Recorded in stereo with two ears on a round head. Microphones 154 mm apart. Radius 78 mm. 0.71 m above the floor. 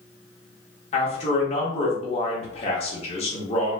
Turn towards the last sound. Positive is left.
turn(degrees=35)  # may be behind; listen again after turning